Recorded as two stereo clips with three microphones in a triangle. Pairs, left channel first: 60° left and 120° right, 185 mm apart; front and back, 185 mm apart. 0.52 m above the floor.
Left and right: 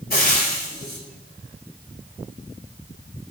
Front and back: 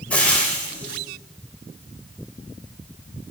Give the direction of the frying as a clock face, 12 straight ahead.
9 o'clock.